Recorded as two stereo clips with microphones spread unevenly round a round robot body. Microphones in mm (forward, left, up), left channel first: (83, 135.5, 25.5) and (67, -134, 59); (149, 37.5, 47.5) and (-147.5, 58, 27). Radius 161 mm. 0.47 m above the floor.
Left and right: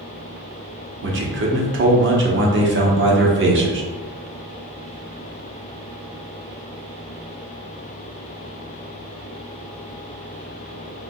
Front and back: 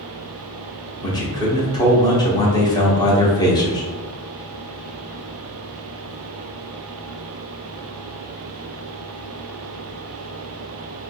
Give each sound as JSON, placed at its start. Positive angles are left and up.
{"t": 1.0, "sound": "a man speaking", "azimuth_deg": -80, "distance_m": 1.0}